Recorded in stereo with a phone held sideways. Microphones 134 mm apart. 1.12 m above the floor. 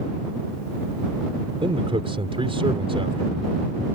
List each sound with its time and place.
1.6 s a man speaking: 45° right (ahead or behind)